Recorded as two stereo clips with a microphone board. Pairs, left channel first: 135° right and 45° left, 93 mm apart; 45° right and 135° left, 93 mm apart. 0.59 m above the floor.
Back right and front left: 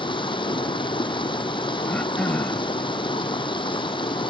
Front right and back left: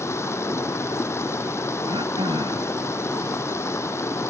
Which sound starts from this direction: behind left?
Throat clearing, at 1.9 s.